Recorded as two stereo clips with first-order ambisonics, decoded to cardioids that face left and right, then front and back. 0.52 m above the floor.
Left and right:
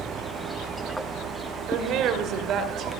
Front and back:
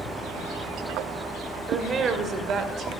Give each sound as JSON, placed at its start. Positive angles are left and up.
{"t": 1.7, "sound": "a woman speaking", "azimuth_deg": -115, "distance_m": 2.5}